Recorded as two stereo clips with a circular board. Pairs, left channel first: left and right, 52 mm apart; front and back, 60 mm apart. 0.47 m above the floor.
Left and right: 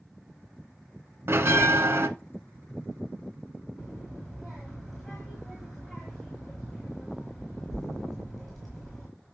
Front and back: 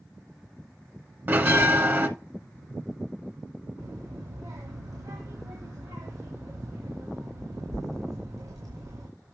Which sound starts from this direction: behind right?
A bell, at 1.3 s.